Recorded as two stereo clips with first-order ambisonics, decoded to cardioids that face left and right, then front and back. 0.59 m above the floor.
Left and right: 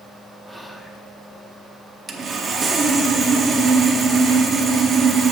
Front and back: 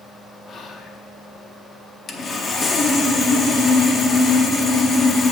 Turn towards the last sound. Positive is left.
turn(degrees=-50)